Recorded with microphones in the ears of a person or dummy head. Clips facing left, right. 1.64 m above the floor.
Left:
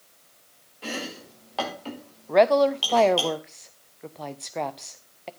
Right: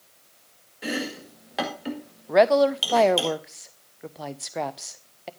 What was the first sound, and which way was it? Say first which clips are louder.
Chopping: right 4 dB; 20° right (ahead or behind).